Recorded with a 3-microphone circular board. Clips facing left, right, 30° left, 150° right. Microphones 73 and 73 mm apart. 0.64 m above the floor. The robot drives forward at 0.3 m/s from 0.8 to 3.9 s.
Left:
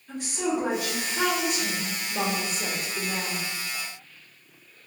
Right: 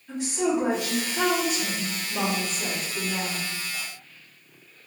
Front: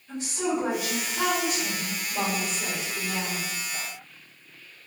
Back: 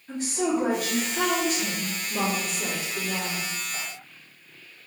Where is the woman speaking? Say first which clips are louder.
Right 3 dB, back 2 dB; 160° right, 1.2 m; by 3.5 s 170° right, 1.8 m.